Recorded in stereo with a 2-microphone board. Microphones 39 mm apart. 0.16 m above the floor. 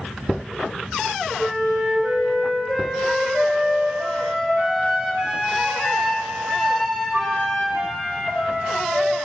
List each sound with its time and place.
1.4 s a flute: 15° right (ahead or behind), 3 m